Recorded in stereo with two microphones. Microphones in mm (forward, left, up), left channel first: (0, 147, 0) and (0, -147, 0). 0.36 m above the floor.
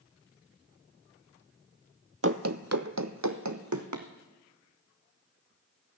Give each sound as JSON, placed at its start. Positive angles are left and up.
{"t": 2.2, "sound": "running footsteps", "side_deg": -50, "distance_m": 0.7}